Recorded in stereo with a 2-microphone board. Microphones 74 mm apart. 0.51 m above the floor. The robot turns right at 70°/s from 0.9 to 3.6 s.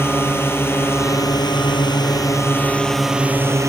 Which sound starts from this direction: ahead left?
A drone, at 0.0 s.